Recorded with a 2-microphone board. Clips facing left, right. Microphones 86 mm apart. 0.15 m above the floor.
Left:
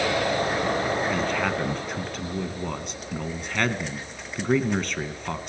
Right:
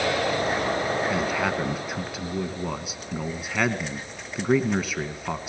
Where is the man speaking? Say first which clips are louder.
Even; 5° right (ahead or behind), 1.6 m.